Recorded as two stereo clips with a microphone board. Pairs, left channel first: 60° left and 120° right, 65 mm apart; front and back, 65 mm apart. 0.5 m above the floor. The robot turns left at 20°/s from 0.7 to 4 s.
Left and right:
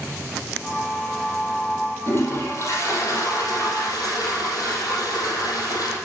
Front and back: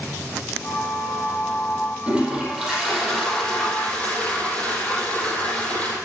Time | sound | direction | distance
2.1 | a toilet flushing | 105° left | 5.5 m